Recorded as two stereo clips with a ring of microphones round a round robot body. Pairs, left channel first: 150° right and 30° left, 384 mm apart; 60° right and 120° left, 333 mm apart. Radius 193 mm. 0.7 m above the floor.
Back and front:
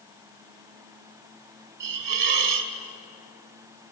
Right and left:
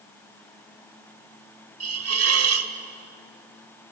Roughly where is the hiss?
Left.